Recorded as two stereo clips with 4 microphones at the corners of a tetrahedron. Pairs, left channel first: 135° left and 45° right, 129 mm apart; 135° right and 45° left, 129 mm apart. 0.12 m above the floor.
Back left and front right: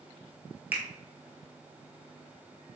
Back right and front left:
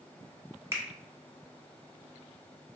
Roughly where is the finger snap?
Ahead.